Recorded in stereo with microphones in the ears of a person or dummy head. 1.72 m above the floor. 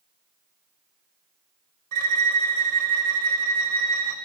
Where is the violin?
50° right (ahead or behind), 0.9 m.